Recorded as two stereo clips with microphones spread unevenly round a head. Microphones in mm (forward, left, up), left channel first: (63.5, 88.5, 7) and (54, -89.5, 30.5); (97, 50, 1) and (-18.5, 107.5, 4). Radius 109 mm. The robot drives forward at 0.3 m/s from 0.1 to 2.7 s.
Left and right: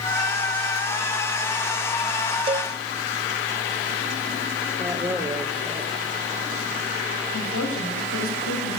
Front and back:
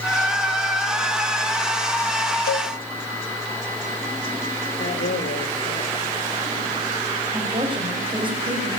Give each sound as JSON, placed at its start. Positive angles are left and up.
{"t": 2.5, "sound": "a cowbell", "azimuth_deg": -30, "distance_m": 1.2}
{"t": 4.8, "sound": "a man speaking", "azimuth_deg": -5, "distance_m": 4.5}
{"t": 7.3, "sound": "a woman speaking", "azimuth_deg": 100, "distance_m": 7.5}